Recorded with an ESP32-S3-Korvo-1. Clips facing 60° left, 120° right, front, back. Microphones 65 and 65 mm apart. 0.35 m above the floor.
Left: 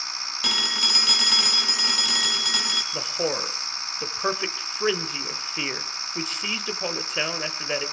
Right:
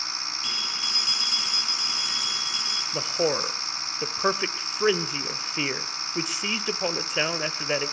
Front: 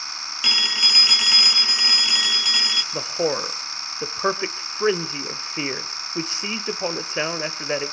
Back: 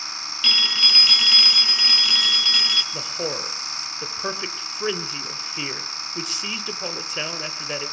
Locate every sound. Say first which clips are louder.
0.4 s a phone ringing: left 10 dB, back 1 dB; 75° left, 1.4 m
2.9 s a man speaking: right 3 dB, front 5 dB; 45° right, 1.1 m